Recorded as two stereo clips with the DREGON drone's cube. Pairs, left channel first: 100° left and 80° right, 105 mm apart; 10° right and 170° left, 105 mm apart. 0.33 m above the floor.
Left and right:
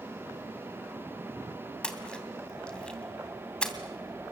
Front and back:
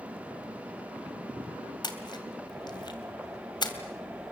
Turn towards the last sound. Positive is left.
turn(degrees=20)